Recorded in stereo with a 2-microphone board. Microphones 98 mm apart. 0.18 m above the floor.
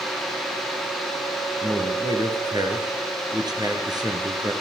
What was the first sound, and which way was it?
A man speaking, 45° right (ahead or behind).